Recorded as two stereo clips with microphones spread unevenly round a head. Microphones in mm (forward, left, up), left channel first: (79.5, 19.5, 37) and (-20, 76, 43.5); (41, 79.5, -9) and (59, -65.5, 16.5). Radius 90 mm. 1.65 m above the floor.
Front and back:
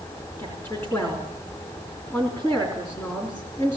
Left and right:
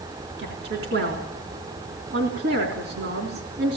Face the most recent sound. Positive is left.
turn(degrees=-110)